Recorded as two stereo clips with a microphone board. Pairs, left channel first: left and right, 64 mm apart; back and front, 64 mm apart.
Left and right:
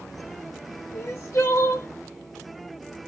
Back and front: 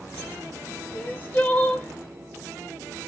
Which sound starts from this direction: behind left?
Crying, at 0.9 s.